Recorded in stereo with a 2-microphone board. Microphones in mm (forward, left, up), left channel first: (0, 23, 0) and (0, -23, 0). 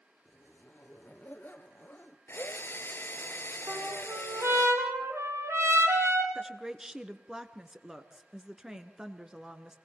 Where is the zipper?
40° left (ahead or behind), 1.3 m.